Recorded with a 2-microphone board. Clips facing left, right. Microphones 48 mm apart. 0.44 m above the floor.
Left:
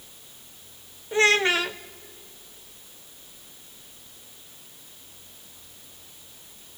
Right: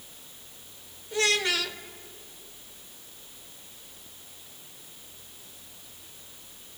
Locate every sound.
1.1 s a child speaking: 30° left (ahead or behind), 0.6 m